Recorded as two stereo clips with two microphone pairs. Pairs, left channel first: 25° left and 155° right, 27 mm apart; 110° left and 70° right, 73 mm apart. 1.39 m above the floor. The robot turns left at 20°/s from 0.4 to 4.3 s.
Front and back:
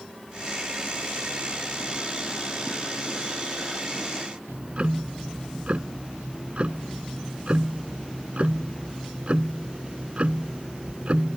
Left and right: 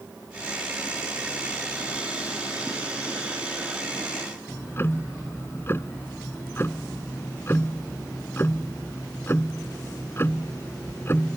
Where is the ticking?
165° left.